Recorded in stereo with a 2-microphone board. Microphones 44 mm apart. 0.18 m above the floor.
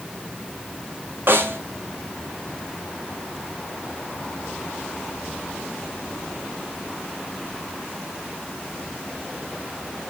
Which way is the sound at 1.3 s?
50° right (ahead or behind).